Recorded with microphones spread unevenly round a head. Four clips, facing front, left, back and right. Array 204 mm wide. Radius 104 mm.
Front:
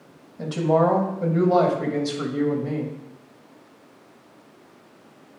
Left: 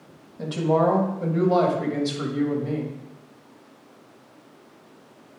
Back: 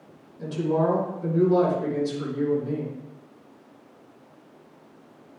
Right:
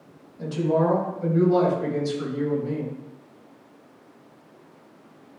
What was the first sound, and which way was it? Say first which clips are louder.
A woman speaking: left 1 dB, front 4 dB; 30° left.